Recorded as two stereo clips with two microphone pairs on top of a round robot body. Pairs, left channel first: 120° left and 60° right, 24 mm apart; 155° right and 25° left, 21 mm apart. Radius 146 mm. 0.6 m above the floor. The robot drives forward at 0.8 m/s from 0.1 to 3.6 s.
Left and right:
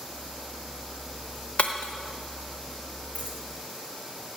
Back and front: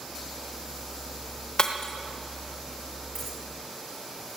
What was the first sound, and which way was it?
Breaking glass, 160° left.